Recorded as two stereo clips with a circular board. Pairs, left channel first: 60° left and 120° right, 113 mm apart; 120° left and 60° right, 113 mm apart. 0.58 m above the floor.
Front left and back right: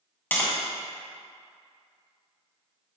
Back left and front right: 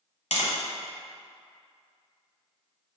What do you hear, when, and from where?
0.3 s tapping: 135° left, 1.4 m